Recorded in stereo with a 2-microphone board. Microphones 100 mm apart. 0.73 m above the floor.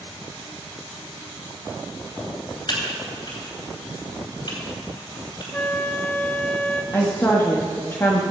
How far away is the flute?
About 0.7 m.